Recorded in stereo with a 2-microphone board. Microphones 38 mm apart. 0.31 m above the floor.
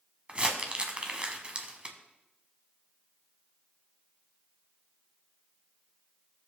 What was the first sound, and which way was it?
Crumpling, 30° right (ahead or behind).